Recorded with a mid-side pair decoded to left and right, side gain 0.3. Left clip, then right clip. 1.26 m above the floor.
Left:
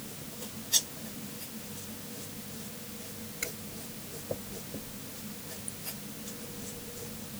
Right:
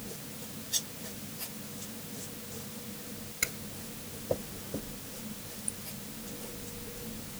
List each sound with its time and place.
Only background noise.